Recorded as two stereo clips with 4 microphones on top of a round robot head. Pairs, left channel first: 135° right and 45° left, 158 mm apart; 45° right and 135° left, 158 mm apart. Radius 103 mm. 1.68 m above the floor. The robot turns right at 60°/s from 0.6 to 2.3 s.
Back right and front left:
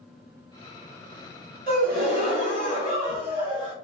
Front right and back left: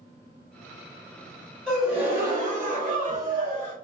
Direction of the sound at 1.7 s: 40° left.